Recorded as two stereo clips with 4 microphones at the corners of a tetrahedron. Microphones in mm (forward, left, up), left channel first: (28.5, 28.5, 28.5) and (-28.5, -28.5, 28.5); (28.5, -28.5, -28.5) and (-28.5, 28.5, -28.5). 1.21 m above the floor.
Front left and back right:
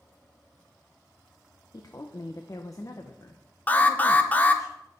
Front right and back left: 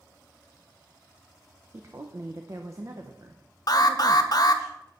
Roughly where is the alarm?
Ahead.